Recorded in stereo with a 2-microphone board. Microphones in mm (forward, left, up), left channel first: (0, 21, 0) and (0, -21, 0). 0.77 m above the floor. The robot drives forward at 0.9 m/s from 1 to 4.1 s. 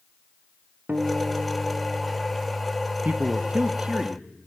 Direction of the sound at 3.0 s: 30° right (ahead or behind).